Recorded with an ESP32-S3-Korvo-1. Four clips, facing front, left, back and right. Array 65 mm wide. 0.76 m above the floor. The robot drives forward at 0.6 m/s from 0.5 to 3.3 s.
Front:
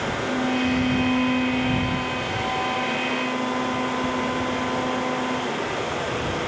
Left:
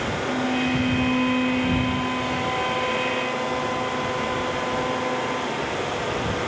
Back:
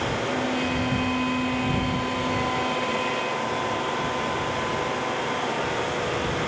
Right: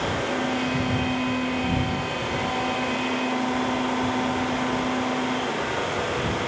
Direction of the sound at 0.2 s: 40° left.